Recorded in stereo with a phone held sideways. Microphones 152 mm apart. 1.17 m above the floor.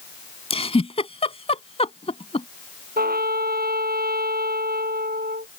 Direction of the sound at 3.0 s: 85° right.